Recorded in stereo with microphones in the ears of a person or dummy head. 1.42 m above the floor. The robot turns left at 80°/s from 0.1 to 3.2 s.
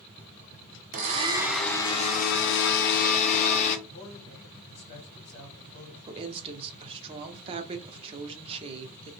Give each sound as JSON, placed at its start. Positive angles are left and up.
{"t": 0.9, "sound": "a blender", "azimuth_deg": -130, "distance_m": 0.6}
{"t": 3.9, "sound": "a man speaking", "side_deg": 35, "distance_m": 1.3}
{"t": 6.1, "sound": "a woman speaking", "side_deg": -35, "distance_m": 0.5}